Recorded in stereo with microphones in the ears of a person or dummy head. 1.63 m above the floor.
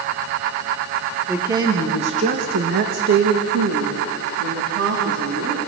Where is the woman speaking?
20° right (ahead or behind), 2.0 m; by 5.6 s 60° right (ahead or behind), 4 m.